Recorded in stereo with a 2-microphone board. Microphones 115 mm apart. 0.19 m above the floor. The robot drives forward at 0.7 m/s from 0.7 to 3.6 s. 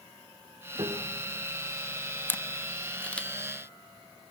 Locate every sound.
0.8 s a piano: 40° right (ahead or behind), 5 m; by 1.5 s 45° right (ahead or behind), 4.5 m
2.3 s a camera shutter: 15° left (ahead or behind), 0.6 m; by 3.3 s 10° left (ahead or behind), 1.1 m